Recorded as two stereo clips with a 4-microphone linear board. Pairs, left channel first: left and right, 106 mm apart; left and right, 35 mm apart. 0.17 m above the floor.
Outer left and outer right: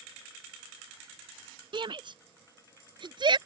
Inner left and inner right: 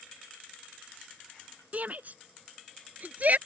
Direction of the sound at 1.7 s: 50° right (ahead or behind).